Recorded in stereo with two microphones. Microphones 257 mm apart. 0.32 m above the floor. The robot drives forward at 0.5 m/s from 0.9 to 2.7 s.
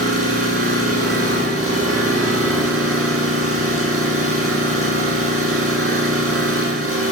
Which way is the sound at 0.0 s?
60° right (ahead or behind).